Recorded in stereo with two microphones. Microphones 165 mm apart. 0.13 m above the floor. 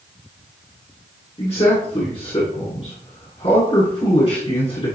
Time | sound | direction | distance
1.4 | a man speaking | 35° left (ahead or behind) | 1.6 m